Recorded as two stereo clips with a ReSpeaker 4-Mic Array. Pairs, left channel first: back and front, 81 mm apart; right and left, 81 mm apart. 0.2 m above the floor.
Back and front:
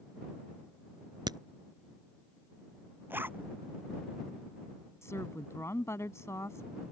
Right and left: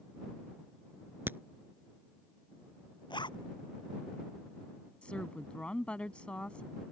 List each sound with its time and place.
1.3 s a crack: 25° left
3.1 s a zipper: 65° right
5.0 s a woman speaking: 160° right